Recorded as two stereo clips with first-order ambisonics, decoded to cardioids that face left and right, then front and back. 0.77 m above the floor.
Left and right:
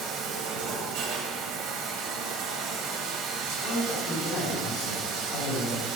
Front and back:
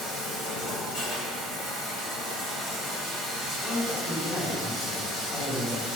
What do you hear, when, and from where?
0.0 s running water: 60° right, 2.5 m
3.4 s a man speaking: 70° left, 2.5 m